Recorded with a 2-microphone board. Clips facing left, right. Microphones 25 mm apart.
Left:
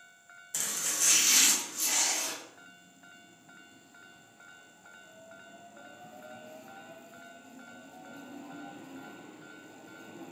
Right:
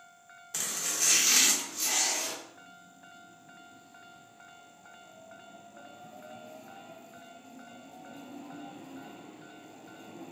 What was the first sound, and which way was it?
Chopping, 20° right (ahead or behind).